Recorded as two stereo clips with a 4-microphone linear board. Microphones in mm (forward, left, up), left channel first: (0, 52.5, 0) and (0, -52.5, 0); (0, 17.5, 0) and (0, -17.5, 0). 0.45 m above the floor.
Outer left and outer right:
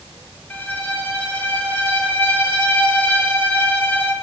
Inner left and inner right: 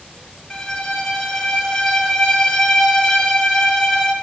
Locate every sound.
0.5 s a violin: 15° left (ahead or behind), 0.7 m